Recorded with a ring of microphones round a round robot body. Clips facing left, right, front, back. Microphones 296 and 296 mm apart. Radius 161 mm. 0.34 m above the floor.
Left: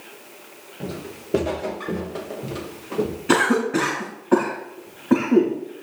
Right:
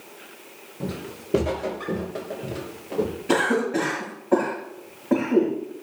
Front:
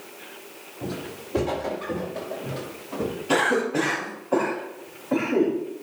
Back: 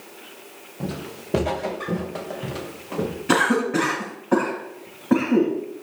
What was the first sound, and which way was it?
Footsteps, 165° right.